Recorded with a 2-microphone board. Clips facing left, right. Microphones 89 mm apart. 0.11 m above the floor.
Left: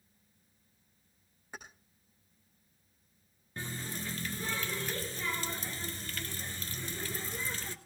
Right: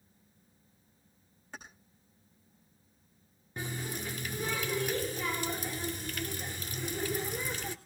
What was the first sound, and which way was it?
Keys jangling, 10° left (ahead or behind).